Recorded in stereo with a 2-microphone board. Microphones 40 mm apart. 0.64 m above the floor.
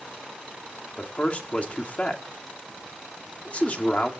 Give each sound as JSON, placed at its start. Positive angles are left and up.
{"t": 1.0, "sound": "a man speaking", "side_deg": 35, "distance_m": 1.6}